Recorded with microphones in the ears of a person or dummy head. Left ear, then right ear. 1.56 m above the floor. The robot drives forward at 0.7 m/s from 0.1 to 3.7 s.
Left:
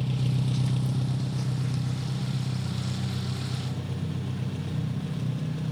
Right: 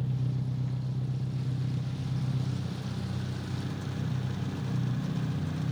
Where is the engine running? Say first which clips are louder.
Left 5 dB; 50° left (ahead or behind), 0.7 m; by 5.7 s 15° left (ahead or behind), 2 m.